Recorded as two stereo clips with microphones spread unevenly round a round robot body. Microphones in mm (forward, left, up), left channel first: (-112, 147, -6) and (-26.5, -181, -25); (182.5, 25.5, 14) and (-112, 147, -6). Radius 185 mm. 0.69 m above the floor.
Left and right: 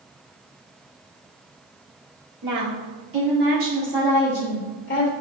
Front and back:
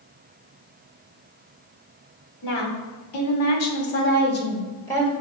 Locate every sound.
2.4 s a woman speaking: 45° right, 2 m; by 5.1 s 65° left, 1.3 m